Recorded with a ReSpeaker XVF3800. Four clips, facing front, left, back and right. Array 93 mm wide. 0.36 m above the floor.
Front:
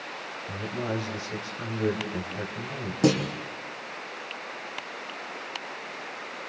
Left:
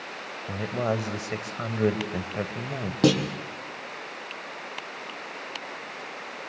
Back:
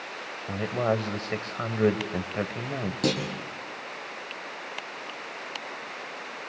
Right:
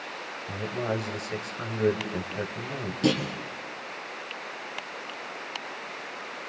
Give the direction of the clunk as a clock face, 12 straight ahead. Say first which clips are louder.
Left 4 dB, front 6 dB; 10 o'clock.